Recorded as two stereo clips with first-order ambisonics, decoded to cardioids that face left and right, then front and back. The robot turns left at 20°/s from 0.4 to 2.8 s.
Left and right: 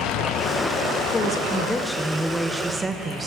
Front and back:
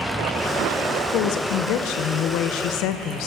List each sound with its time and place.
1.1 s a woman speaking: 20° left, 0.6 m; by 3.3 s 15° right, 0.6 m